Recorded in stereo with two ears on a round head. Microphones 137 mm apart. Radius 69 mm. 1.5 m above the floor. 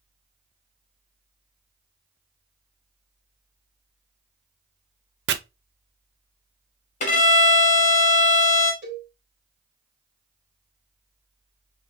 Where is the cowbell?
35° right (ahead or behind), 2 m.